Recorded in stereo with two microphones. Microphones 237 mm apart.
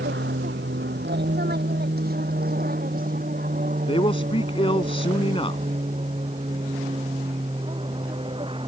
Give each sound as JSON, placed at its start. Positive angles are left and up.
{"t": 0.0, "sound": "an aircraft", "side_deg": -50}
{"t": 3.9, "sound": "a man speaking", "side_deg": 25}